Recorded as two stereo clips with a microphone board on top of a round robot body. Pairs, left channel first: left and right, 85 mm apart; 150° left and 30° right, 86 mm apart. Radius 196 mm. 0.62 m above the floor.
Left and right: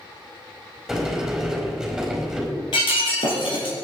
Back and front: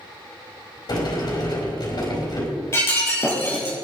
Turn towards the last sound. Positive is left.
turn(degrees=90)